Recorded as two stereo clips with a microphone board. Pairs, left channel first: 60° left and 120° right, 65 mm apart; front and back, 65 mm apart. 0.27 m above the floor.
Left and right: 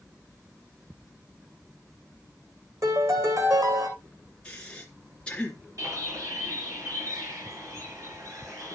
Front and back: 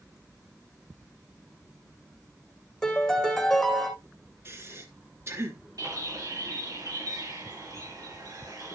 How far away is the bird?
About 4 m.